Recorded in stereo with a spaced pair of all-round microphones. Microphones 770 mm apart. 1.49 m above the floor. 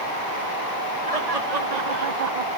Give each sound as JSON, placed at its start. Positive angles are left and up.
{"t": 1.1, "sound": "laughter", "side_deg": -50, "distance_m": 1.8}